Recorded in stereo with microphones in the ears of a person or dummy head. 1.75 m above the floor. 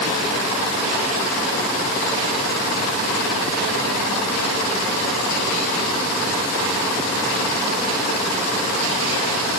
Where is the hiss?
No hiss in this recording.